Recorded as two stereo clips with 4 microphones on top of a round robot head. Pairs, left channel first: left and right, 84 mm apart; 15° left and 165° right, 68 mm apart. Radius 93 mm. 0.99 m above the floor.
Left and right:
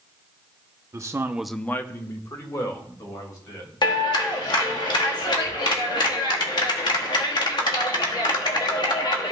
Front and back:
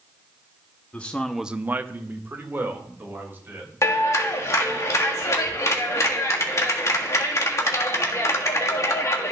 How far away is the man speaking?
About 0.9 m.